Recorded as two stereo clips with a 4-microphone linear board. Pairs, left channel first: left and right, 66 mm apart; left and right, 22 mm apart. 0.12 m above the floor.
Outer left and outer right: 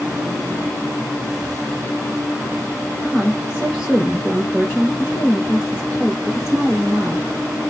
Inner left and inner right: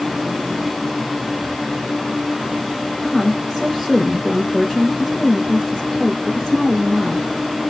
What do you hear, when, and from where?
3.0 s a woman speaking: 10° right (ahead or behind), 2.5 m